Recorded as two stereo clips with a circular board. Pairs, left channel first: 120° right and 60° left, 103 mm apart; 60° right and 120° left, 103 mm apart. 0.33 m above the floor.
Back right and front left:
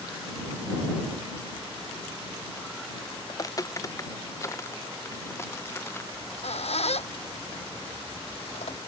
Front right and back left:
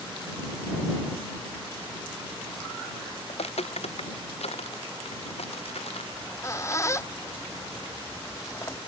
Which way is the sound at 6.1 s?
120° right.